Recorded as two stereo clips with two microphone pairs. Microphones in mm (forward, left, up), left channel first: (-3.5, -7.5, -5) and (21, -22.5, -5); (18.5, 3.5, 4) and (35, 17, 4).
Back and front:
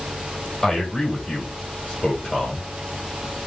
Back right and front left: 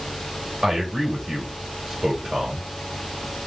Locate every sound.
0.6 s a man speaking: 85° left, 1.8 m